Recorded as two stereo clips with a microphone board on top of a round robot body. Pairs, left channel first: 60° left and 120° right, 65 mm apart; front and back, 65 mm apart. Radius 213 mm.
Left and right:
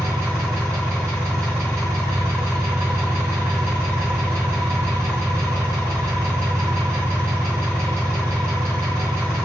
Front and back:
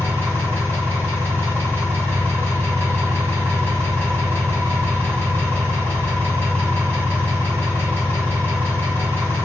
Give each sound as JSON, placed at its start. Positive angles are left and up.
{"t": 0.0, "sound": "an engine running", "azimuth_deg": -55, "distance_m": 2.0}